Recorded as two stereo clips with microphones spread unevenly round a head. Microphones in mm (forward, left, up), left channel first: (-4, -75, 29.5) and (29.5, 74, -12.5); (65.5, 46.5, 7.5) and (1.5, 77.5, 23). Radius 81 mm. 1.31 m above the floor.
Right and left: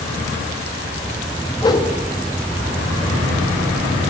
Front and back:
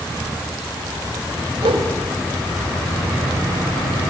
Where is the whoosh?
170° right, 2.0 m.